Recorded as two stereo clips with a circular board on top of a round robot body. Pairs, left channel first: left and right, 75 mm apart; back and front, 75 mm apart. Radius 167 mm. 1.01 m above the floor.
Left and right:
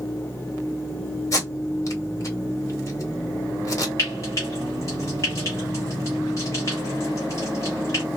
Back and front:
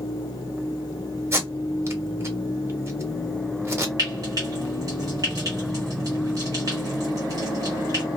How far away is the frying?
About 1.1 m.